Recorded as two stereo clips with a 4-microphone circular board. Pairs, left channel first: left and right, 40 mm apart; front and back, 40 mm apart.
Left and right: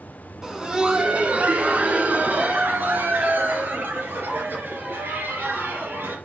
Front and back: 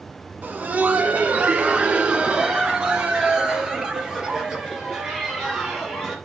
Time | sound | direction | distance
0.4 | laughter | 165° right | 1.4 m